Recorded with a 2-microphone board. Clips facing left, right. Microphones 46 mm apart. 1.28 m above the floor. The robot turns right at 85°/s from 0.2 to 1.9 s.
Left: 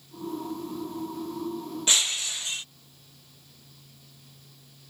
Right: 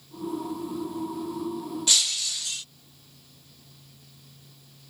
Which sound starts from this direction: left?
Breaking glass, at 1.9 s.